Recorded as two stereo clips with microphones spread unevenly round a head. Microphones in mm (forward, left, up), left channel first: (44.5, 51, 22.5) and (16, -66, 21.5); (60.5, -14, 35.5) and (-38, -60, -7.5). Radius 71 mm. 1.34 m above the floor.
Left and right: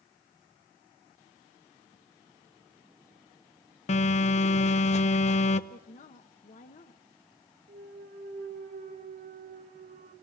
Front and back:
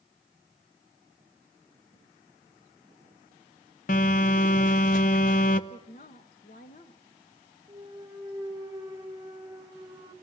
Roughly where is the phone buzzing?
Ahead left.